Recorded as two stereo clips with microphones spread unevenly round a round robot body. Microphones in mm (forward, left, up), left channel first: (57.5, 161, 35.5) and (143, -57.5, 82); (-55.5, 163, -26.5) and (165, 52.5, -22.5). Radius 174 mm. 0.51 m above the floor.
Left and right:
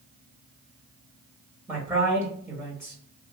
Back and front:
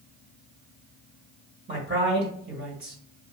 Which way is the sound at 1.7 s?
20° left.